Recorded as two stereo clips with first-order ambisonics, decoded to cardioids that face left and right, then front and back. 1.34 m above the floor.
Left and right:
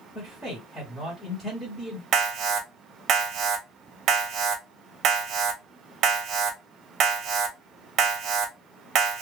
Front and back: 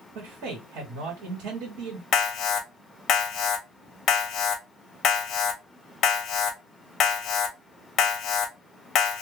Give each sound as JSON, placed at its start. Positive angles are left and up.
{"t": 0.1, "sound": "a man speaking", "azimuth_deg": 175, "distance_m": 1.1}
{"t": 2.1, "sound": "an alarm", "azimuth_deg": -50, "distance_m": 0.6}